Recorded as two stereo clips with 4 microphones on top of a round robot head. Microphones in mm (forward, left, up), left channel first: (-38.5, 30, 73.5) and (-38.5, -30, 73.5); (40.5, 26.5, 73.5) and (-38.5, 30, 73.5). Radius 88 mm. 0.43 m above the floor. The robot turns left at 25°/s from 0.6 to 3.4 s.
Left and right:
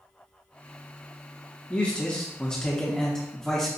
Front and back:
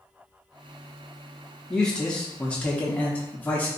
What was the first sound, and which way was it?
A man speaking, 65° left.